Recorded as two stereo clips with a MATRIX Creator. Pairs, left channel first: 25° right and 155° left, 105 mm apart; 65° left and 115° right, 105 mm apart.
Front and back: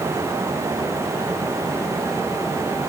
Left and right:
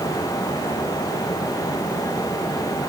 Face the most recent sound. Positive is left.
No sound to turn to.